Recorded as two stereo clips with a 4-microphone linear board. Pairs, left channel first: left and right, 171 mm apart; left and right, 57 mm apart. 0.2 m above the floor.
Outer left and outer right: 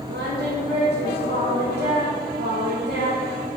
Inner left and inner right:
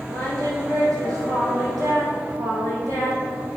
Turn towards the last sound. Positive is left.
turn(degrees=-85)